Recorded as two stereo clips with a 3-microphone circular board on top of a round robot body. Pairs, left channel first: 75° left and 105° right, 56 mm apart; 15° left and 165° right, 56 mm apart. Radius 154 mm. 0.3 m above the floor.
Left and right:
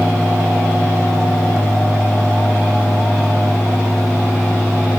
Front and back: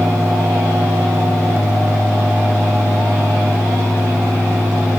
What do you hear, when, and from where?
Only background noise.